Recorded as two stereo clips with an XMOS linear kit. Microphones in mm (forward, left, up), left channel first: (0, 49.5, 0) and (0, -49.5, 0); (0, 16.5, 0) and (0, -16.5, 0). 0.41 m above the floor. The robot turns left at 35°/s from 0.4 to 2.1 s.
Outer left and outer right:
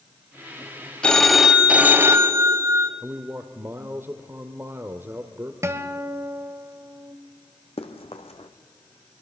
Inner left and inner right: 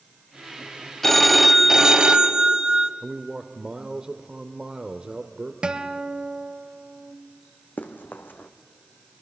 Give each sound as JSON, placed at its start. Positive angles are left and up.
{"t": 1.0, "sound": "a phone ringing", "azimuth_deg": 10, "distance_m": 1.2}
{"t": 3.0, "sound": "a man speaking", "side_deg": -25, "distance_m": 1.0}
{"t": 5.6, "sound": "a guitar", "side_deg": -30, "distance_m": 1.1}
{"t": 7.8, "sound": "running footsteps", "side_deg": 80, "distance_m": 1.5}